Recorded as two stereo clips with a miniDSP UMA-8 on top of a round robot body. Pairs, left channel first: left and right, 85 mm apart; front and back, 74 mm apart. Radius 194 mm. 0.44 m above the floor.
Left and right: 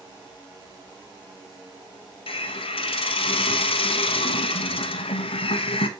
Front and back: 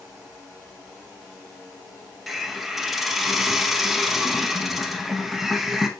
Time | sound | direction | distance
2.3 | a hiss | 90° left | 0.8 m